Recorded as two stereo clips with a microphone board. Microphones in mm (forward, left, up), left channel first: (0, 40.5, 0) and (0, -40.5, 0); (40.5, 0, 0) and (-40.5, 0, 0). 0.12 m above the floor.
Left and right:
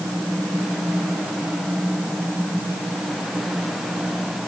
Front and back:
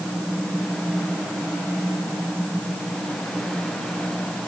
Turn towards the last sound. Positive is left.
No sound to turn to.